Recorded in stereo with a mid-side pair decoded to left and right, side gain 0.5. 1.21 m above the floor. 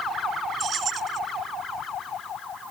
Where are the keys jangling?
50° right.